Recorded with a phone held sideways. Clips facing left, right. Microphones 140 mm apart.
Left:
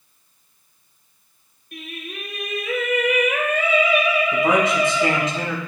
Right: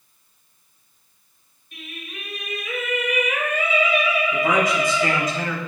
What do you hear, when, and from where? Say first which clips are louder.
1.7 s singing: left 4 dB; 60° left (ahead or behind), 3.5 m
4.3 s a man speaking: left 2 dB; 30° left (ahead or behind), 4 m